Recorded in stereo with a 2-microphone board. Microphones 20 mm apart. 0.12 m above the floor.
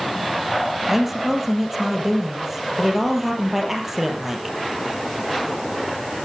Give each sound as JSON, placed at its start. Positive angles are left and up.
{"t": 0.9, "sound": "a woman speaking", "side_deg": -10, "distance_m": 4.0}